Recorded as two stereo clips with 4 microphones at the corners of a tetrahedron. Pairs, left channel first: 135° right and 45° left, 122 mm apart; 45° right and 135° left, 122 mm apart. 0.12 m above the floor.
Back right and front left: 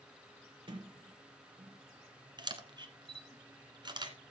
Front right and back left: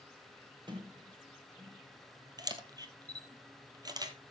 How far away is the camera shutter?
About 1.4 m.